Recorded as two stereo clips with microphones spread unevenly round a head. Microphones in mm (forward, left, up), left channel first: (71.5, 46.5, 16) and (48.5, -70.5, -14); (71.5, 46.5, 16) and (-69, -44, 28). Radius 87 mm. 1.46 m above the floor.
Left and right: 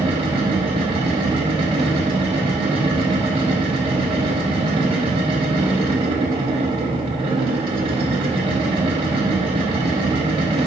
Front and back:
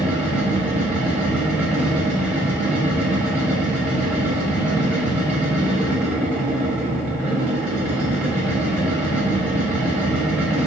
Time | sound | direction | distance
0.0 | a machine running | 70° right | 1.0 m